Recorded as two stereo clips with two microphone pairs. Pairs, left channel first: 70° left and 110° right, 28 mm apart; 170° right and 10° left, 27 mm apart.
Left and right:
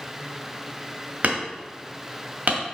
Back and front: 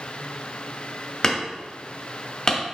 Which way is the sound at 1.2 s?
110° right.